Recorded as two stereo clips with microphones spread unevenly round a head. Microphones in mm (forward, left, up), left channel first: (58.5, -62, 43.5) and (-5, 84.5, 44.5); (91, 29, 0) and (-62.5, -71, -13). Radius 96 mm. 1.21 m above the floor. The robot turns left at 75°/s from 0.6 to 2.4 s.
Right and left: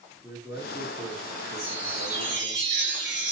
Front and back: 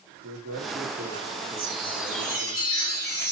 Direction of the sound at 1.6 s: 165° left.